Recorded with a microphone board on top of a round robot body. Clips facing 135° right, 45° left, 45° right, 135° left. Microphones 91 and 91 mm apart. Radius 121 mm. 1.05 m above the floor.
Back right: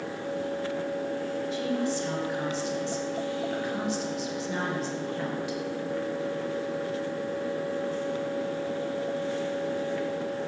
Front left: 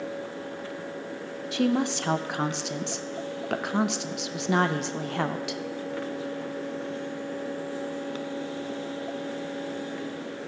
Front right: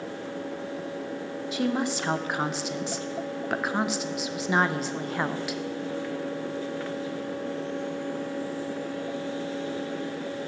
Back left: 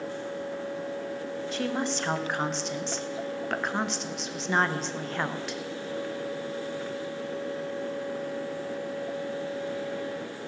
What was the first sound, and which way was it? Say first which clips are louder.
A woman speaking: front left 6 dB, front right 4 dB; 40° left.